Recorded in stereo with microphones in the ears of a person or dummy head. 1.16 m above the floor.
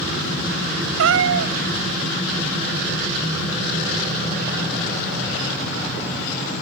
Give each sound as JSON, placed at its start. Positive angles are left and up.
{"t": 1.0, "sound": "a cat meowing", "side_deg": -75, "distance_m": 1.0}